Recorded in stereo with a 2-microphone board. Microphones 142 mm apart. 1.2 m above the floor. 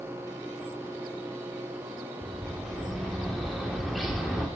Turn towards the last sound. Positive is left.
turn(degrees=0)  # may be behind; listen again after turning